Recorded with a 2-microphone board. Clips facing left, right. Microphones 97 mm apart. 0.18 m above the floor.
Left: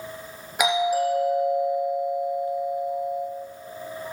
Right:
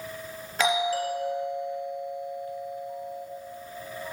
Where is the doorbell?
15° left (ahead or behind), 4 m.